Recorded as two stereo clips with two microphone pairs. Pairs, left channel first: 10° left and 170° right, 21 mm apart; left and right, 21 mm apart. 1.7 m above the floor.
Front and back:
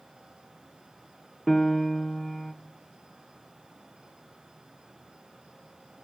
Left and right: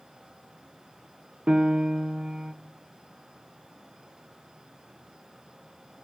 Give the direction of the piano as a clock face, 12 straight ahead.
2 o'clock.